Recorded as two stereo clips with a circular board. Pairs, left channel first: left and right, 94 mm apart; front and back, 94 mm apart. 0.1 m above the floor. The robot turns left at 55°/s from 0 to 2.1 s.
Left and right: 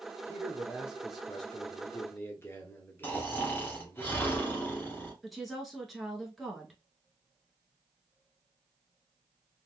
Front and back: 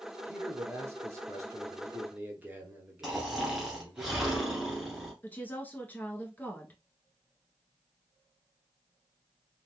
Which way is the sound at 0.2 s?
130° right.